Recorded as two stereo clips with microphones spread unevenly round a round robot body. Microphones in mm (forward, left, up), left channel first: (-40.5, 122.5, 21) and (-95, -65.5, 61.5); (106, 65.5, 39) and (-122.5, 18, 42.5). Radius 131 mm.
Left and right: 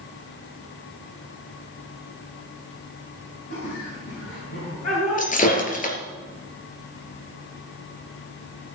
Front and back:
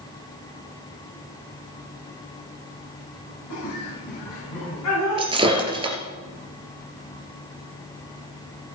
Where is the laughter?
20° left, 5 m; by 5.3 s 15° left, 6.5 m.